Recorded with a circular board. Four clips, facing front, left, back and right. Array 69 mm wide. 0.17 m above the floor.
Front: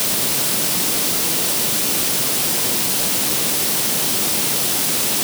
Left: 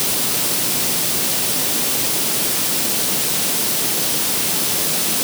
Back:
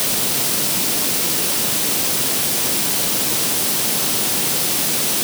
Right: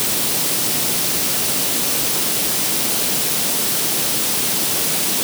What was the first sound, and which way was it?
Only background noise.